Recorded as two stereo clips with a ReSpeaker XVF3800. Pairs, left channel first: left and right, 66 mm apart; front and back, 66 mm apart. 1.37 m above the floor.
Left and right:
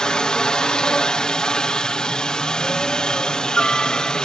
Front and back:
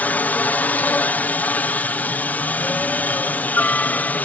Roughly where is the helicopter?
Ahead left.